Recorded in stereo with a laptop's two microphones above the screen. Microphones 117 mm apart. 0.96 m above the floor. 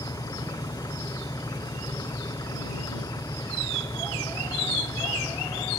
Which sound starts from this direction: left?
An engine running, at 0.0 s.